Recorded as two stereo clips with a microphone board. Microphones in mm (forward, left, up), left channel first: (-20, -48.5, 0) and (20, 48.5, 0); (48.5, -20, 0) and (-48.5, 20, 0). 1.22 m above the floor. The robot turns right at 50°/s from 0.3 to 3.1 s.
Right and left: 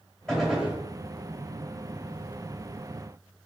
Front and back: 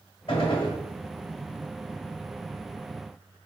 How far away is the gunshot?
About 1.9 m.